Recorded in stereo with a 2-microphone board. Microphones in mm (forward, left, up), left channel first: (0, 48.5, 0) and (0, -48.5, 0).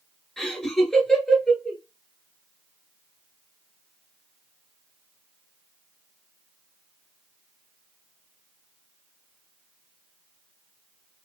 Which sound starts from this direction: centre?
Laughter, at 0.4 s.